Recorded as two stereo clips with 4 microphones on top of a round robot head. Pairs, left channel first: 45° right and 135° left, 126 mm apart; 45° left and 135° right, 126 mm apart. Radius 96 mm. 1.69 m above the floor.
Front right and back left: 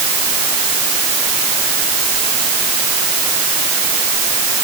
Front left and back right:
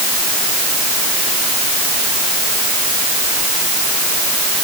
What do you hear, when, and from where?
Only background noise.